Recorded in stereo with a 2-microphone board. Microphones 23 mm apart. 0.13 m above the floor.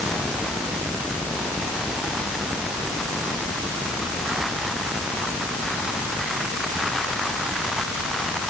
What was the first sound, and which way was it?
Only background noise.